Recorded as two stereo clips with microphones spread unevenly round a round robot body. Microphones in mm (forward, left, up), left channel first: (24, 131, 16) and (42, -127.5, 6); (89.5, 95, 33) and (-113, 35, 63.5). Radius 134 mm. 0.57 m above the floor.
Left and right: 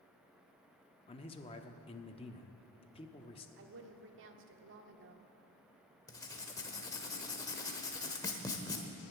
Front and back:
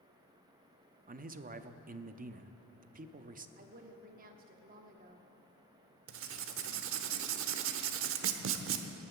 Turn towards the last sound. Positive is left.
turn(degrees=170)